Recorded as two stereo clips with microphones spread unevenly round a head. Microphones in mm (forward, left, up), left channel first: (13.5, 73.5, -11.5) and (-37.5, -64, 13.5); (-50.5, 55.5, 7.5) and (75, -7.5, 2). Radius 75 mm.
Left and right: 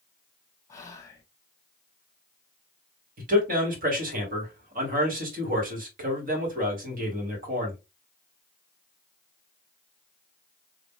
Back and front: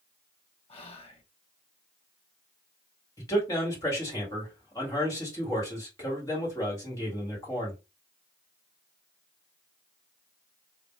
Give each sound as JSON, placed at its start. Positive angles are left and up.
{"t": 0.7, "sound": "whispering", "azimuth_deg": 120, "distance_m": 1.3}
{"t": 3.2, "sound": "a man speaking", "azimuth_deg": -135, "distance_m": 2.0}